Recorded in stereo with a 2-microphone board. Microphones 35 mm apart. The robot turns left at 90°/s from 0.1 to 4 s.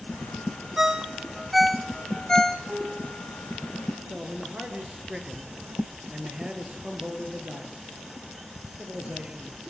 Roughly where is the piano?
Behind right.